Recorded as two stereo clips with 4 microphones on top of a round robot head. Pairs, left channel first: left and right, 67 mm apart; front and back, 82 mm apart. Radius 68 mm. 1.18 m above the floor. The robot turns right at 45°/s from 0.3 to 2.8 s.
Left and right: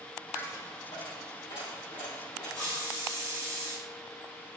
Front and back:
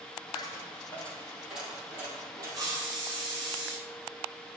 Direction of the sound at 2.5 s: 145° left.